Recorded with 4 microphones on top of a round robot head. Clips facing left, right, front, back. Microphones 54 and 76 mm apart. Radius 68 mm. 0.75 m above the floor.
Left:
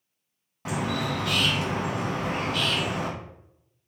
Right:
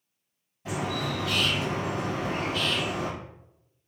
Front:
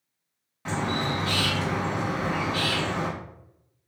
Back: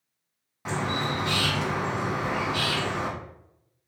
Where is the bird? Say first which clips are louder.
Left 2 dB, front 1 dB; 105° left, 1.7 m.